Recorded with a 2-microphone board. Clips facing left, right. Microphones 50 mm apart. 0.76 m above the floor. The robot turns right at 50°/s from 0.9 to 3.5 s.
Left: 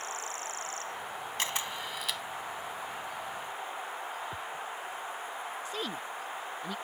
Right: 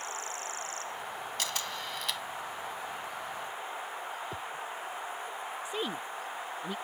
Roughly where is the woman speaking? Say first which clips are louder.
Right 1 dB; right.